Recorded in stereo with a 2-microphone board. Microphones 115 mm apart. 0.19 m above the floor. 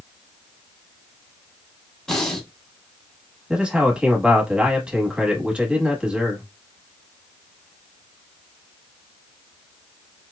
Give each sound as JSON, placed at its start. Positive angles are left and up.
{"t": 2.1, "sound": "breathing", "side_deg": 5, "distance_m": 0.8}
{"t": 3.5, "sound": "a man speaking", "side_deg": -10, "distance_m": 1.1}